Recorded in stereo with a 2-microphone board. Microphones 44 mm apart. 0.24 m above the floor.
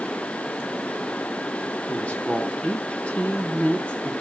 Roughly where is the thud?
No thud in this recording.